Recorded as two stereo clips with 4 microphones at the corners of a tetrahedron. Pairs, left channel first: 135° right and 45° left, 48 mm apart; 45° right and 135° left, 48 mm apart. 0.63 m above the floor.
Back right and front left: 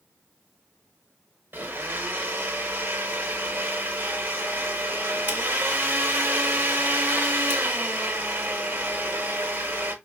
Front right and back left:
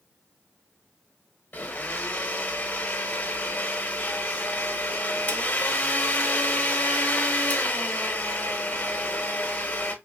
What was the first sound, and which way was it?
A blender, 5° left.